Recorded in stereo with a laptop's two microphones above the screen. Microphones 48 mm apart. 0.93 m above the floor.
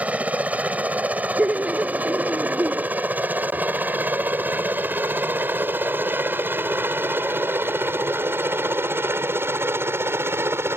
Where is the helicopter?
30° right (ahead or behind); by 10.8 s 60° right (ahead or behind).